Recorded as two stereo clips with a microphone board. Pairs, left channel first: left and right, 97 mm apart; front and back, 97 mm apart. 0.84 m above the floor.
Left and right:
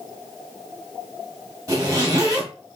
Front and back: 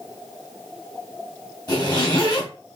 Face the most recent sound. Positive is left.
turn(degrees=-35)